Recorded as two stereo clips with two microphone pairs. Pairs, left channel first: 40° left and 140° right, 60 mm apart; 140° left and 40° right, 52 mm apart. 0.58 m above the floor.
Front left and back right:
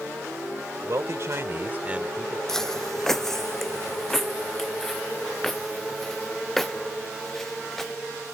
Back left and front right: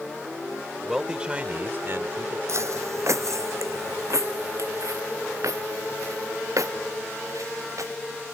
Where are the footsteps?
35° right; by 8.0 s 45° right.